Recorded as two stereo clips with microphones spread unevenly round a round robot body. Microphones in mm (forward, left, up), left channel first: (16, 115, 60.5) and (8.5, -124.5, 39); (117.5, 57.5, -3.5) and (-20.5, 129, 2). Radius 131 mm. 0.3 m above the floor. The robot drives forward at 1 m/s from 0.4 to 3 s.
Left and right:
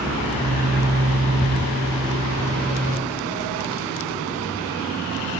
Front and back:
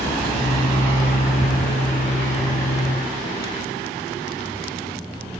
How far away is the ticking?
About 3.5 m.